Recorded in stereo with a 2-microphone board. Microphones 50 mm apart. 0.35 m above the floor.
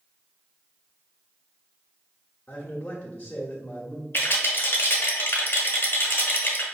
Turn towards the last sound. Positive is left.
turn(degrees=45)  # may be behind; listen again after turning